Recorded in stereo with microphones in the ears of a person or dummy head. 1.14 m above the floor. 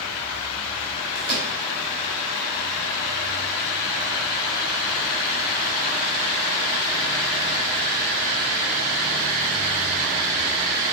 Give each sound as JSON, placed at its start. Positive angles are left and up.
{"t": 1.1, "sound": "a microwave", "side_deg": 50, "distance_m": 2.5}